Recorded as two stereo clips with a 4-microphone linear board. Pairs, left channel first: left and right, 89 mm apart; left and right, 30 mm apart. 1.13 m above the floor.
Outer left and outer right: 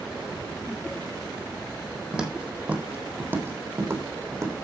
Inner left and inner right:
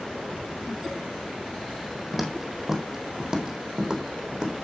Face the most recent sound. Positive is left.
turn(degrees=-40)  # may be behind; listen again after turning